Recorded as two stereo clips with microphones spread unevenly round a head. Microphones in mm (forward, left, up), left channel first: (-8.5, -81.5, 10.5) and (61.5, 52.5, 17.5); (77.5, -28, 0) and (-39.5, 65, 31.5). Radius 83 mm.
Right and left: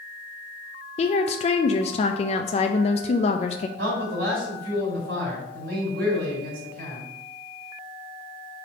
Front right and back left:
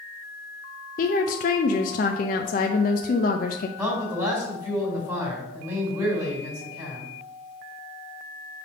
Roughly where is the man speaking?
Ahead left.